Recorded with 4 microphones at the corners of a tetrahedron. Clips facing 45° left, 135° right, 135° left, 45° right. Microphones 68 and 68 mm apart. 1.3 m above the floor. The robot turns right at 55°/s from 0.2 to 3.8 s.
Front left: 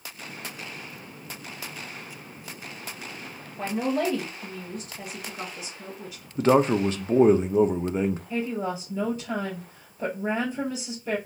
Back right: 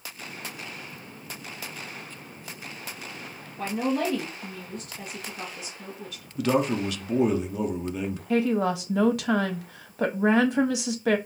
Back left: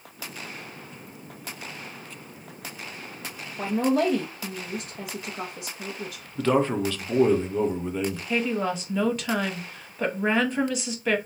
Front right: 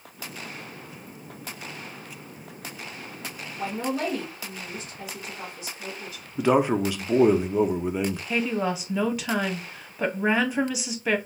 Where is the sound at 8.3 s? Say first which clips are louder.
Back right 5 dB, back left 1 dB; 130° right, 0.7 m.